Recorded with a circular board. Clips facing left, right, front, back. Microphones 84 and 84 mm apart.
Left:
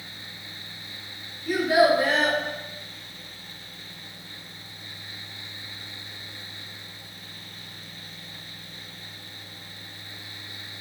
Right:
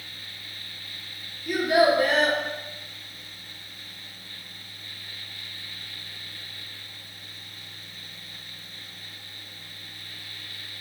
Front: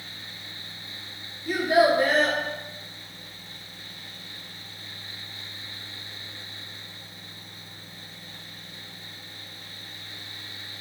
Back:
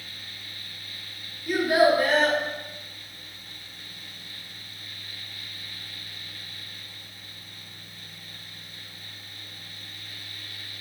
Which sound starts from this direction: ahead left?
A child speaking, at 1.4 s.